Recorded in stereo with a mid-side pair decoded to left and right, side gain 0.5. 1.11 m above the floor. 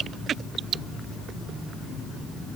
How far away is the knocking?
No knocking in this recording.